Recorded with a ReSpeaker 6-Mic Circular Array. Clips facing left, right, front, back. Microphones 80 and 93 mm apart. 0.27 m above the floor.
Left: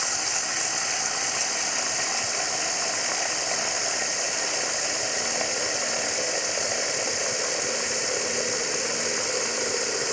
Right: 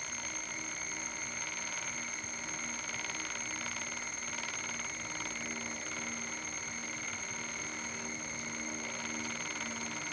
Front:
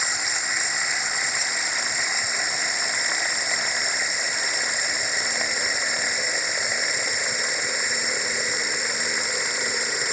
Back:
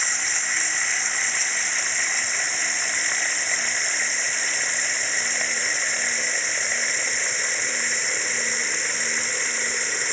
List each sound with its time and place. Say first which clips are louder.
0.0 s running water: left 12 dB, front 1 dB; 80° left